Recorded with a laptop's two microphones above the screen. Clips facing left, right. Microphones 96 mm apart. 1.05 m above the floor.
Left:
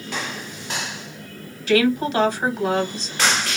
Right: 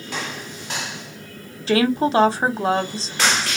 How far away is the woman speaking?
About 1.2 m.